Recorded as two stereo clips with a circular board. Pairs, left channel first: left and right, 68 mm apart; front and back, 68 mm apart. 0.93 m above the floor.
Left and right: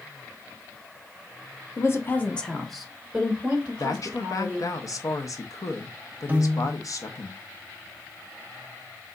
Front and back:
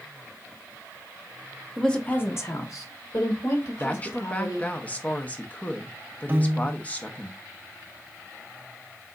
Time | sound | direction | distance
1.8 | a woman speaking | 85° left | 0.8 m
3.8 | a woman speaking | 65° left | 0.8 m
6.3 | a piano | 140° right | 0.6 m